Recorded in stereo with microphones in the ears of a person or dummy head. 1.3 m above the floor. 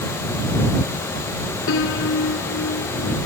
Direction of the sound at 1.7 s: 75° left (ahead or behind).